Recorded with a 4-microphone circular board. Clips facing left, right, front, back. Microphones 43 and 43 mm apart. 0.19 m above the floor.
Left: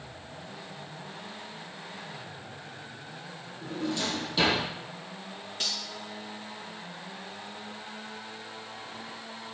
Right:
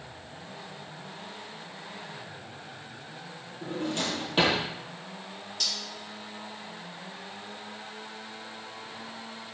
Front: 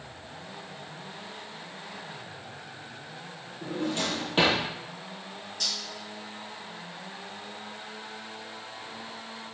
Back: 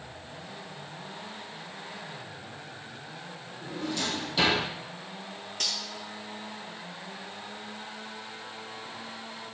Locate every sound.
3.6 s a drawer: 40° right, 3 m
5.6 s cutlery clinking: 150° left, 2 m